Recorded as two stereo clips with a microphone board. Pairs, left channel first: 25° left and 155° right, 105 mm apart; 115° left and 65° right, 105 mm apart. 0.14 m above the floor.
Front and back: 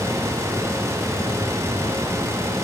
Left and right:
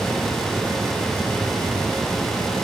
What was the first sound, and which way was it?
Only background noise.